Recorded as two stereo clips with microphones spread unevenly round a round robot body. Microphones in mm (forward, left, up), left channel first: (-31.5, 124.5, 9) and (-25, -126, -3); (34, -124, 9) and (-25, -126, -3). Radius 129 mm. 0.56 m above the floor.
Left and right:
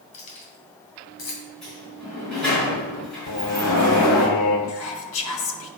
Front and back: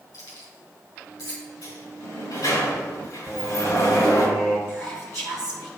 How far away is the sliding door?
About 4 m.